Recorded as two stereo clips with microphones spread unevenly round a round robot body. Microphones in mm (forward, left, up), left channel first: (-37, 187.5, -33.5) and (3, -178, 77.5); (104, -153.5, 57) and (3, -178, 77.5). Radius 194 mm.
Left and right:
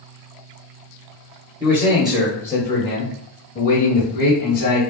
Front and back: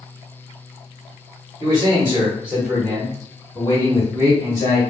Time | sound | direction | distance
1.6 | a man speaking | 170° left | 1.0 m